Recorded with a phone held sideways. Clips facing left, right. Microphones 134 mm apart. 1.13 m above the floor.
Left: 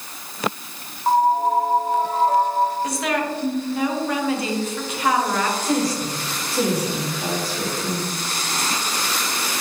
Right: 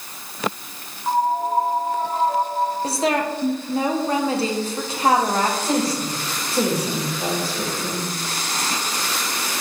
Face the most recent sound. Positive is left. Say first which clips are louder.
# even
turn(degrees=-25)  # may be behind; listen again after turning